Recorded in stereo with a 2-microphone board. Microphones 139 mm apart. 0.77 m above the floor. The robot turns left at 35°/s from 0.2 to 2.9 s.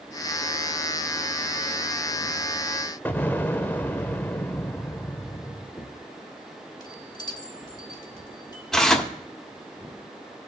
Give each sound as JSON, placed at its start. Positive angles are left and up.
{"t": 3.0, "sound": "an explosion", "side_deg": 15, "distance_m": 0.6}
{"t": 5.8, "sound": "a chime", "side_deg": 30, "distance_m": 1.3}
{"t": 8.7, "sound": "tearing paper", "side_deg": 5, "distance_m": 1.2}